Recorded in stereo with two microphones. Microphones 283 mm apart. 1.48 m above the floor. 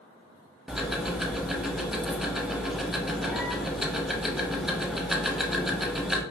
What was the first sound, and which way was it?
Ticking, centre (ahead or behind).